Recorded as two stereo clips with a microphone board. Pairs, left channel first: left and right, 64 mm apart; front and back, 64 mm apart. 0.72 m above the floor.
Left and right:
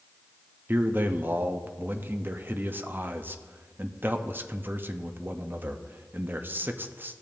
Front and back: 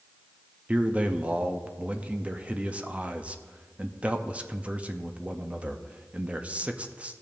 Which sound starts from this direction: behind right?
A man speaking, at 0.7 s.